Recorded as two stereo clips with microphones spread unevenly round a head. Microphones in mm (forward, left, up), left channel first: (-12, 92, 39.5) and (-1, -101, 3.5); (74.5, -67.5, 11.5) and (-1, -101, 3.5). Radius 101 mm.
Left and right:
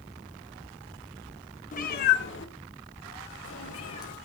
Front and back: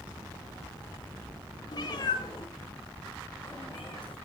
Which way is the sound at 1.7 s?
55° left.